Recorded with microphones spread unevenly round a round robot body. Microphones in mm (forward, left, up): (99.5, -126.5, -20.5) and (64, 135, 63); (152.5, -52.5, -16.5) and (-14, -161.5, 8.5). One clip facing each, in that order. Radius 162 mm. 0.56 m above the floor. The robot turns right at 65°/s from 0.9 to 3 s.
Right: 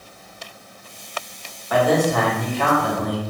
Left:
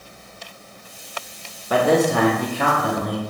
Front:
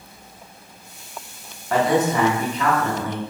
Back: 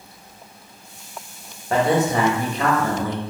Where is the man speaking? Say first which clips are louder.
Left 1 dB, even; 155° left, 0.7 m; by 3.2 s 120° right, 0.7 m.